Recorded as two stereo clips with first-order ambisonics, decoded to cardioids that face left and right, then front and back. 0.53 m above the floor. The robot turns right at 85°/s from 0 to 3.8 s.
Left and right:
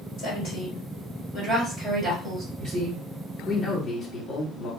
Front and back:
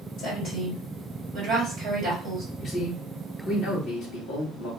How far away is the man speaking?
About 1.6 m.